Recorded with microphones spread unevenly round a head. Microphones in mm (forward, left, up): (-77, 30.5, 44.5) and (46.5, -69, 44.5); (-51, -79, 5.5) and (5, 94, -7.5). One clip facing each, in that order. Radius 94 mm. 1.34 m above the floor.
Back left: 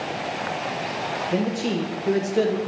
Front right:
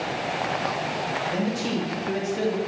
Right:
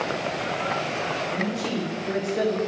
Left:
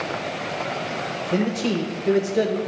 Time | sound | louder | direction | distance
1.3 | a man speaking | back left 4 dB, left 8 dB | 95° left | 1.2 m